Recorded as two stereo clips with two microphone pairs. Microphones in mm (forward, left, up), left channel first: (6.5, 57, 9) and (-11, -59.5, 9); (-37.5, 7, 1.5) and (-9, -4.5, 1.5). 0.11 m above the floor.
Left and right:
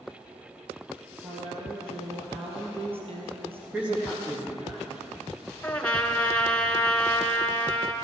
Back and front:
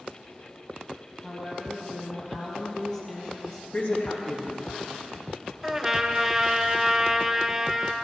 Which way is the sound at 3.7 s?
175° right.